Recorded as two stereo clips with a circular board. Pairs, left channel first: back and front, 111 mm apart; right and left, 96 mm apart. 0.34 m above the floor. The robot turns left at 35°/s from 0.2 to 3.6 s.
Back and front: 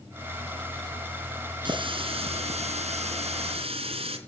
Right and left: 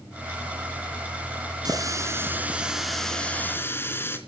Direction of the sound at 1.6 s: 45° left.